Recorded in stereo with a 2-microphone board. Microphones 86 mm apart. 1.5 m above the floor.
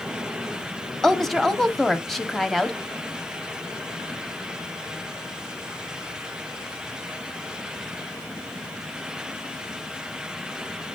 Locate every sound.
1.0 s a woman speaking: centre (ahead or behind), 0.8 m